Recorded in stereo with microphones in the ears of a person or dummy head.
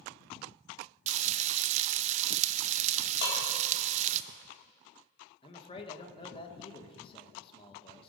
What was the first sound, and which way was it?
Frying, 40° right (ahead or behind).